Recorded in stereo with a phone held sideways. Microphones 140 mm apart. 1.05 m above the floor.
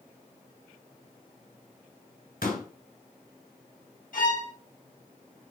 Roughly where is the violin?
Left.